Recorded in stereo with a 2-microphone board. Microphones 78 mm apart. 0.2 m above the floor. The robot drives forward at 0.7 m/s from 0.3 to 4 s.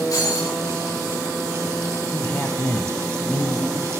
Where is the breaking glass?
50° left (ahead or behind), 9 m.